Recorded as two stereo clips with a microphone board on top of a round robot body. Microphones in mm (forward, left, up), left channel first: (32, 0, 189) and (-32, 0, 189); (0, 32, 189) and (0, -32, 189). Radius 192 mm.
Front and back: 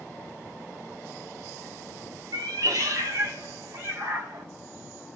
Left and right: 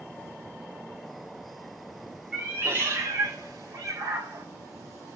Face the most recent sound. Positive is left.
turn(degrees=-125)